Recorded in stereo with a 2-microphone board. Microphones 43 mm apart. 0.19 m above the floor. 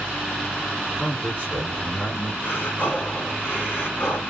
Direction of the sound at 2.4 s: 60° left (ahead or behind).